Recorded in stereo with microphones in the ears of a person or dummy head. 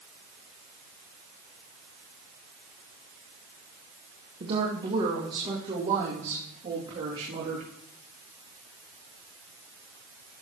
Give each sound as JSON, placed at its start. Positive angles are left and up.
{"t": 4.4, "sound": "a woman speaking", "side_deg": -25, "distance_m": 1.3}